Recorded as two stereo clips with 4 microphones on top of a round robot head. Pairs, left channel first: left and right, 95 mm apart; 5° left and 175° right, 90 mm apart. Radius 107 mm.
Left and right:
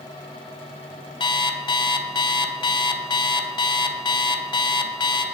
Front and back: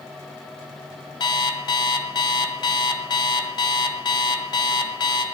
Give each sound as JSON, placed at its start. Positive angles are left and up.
{"t": 1.2, "sound": "an alarm clock", "azimuth_deg": 50, "distance_m": 1.1}